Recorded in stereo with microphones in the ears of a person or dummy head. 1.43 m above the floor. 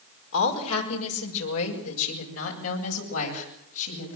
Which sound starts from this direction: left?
A woman speaking, at 0.3 s.